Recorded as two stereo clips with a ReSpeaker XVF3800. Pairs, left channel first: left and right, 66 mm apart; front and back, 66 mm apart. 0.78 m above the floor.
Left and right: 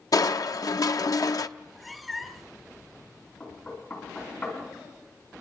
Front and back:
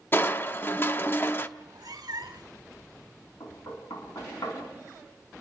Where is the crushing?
55° left, 0.7 m.